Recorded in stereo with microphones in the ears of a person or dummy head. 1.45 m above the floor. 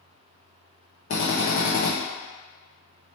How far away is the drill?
About 0.8 m.